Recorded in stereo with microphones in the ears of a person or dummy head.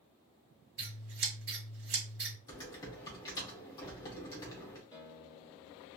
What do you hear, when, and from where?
0.8 s scissors: 55° right (ahead or behind), 1.5 m
2.5 s typing on a keyboard: 15° left (ahead or behind), 0.8 m
4.9 s a guitar: 15° left (ahead or behind), 1.2 m